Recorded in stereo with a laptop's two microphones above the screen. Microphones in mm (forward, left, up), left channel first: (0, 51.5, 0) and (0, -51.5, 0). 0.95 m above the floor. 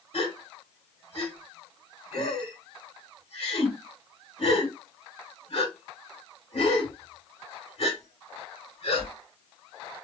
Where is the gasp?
65° left (ahead or behind), 2 m.